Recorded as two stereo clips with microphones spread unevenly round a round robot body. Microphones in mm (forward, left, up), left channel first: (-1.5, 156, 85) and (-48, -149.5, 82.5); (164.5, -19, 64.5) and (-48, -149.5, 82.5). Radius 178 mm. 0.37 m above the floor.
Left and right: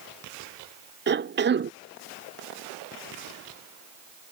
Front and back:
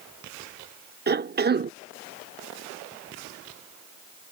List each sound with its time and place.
1.1 s a cough: 125° right